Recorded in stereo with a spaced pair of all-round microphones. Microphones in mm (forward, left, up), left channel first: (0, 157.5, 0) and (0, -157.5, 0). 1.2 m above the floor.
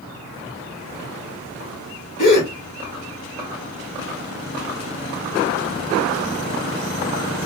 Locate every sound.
2.2 s a gasp: 70° left (ahead or behind), 1.4 m